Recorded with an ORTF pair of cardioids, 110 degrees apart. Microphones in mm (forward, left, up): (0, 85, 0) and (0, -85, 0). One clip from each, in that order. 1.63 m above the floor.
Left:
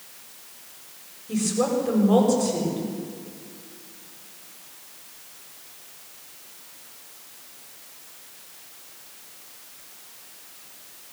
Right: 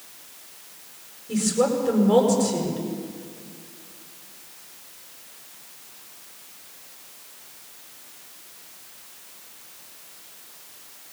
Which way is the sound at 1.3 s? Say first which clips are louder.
Right 2 dB; 5° right.